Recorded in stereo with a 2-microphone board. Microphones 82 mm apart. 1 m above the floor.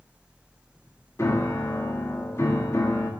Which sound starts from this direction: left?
A piano, at 1.2 s.